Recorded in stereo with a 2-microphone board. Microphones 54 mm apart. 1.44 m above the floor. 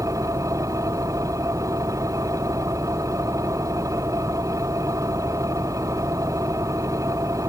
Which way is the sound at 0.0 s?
80° right.